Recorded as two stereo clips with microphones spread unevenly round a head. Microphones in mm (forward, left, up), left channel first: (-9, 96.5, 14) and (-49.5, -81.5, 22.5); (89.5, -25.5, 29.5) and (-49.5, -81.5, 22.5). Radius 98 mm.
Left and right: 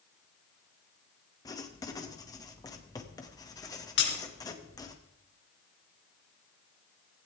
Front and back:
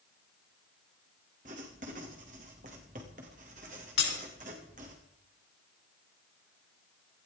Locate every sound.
1.4 s writing: 150° left, 2.5 m
4.0 s breaking glass: 40° left, 4 m